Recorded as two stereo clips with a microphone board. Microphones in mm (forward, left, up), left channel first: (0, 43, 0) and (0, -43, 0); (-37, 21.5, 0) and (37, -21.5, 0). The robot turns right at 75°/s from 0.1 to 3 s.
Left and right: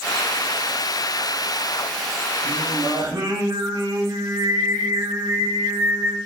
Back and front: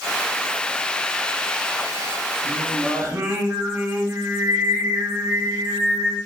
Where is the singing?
120° right, 0.8 m; by 6.2 s 75° right, 0.8 m.